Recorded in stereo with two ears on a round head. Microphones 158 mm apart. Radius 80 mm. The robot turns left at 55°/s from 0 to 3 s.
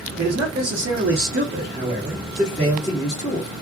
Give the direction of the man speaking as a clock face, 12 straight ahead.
2 o'clock.